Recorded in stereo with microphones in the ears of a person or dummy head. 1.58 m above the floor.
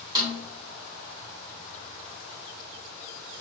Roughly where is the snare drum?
Right.